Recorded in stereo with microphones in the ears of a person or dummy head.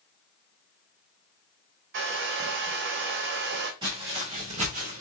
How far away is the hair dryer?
About 0.8 m.